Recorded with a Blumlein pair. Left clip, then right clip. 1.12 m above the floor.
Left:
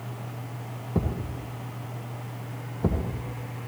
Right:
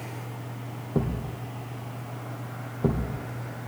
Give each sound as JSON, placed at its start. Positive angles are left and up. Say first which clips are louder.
{"t": 0.9, "sound": "a thud", "louder": "right 1 dB", "azimuth_deg": -5, "distance_m": 1.6}